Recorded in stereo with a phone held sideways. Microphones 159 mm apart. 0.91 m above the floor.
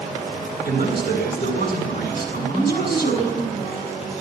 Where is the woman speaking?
35° left (ahead or behind), 9.5 m.